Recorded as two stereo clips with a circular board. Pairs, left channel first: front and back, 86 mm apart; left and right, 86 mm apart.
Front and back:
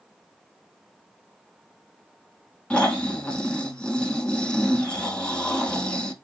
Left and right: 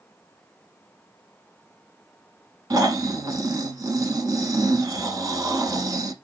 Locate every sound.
2.7 s snoring: 75° right, 0.8 m